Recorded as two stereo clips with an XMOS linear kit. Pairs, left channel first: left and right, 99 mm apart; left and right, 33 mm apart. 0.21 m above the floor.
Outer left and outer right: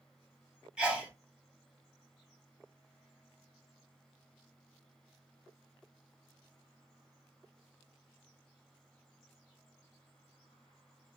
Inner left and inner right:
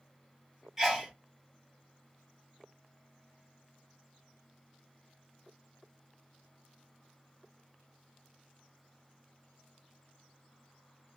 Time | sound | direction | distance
0.8 | a sneeze | 10° right (ahead or behind) | 1.2 m